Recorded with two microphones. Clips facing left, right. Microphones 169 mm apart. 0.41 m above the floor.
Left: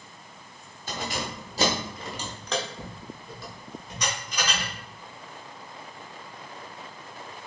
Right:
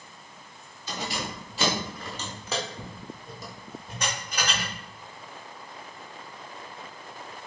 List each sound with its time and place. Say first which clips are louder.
0.9 s keys jangling: left 1 dB; 60° left (ahead or behind), 1.2 m; by 4.7 s 65° right (ahead or behind), 1.7 m